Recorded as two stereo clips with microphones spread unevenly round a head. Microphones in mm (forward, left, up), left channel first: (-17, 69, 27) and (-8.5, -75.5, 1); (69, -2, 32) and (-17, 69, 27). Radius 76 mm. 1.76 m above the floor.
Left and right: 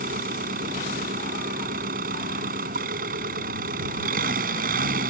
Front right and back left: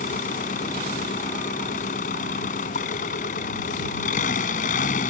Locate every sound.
0.0 s an engine running: 45° right